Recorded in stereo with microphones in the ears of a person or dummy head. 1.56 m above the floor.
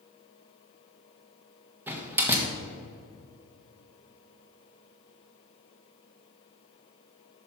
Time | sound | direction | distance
1.9 | a door slam | 10° right (ahead or behind) | 1.4 m